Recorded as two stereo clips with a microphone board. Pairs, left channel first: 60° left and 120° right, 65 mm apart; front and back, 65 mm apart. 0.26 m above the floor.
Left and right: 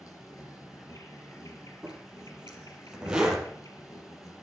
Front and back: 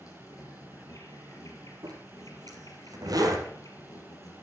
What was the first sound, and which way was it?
An insect, 30° left.